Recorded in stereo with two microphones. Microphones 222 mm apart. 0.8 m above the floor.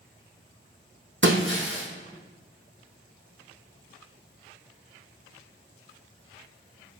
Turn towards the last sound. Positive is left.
turn(degrees=-60)  # may be behind; listen again after turning